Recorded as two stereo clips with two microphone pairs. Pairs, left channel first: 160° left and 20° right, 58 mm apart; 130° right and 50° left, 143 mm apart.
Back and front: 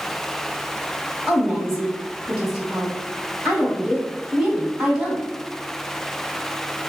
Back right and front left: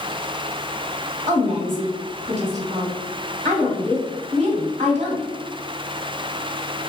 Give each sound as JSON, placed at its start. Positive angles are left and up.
{"t": 1.3, "sound": "a woman speaking", "azimuth_deg": 35, "distance_m": 1.1}